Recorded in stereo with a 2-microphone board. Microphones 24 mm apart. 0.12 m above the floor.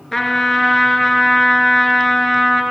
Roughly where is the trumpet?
Centre.